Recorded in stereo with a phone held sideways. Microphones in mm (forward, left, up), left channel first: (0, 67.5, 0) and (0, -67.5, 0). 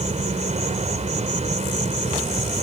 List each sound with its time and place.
0.0 s an insect: 60° right (ahead or behind)